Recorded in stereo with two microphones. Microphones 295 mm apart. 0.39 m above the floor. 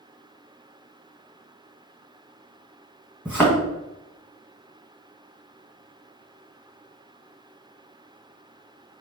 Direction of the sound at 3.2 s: 5° left (ahead or behind).